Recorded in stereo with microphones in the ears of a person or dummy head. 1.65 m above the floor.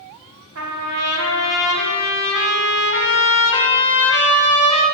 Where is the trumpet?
70° right (ahead or behind), 1.7 m.